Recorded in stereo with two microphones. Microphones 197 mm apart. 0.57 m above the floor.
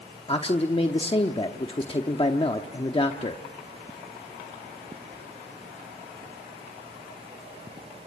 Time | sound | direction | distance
0.3 | a man speaking | 30° left (ahead or behind) | 0.9 m